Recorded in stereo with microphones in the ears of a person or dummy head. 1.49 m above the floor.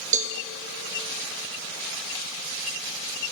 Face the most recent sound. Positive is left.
turn(degrees=-40)  # may be behind; listen again after turning